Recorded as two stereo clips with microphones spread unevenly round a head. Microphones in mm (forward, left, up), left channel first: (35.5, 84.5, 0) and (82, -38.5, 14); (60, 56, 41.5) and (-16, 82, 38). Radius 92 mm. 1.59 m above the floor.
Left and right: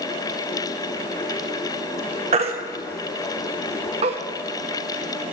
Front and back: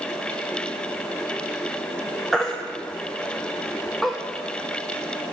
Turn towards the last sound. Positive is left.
turn(degrees=-105)